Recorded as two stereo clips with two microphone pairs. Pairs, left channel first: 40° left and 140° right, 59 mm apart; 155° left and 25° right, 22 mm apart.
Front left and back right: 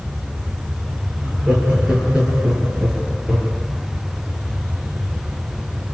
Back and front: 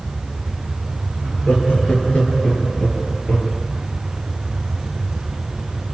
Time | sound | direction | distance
1.2 | laughter | 150° left | 9.5 m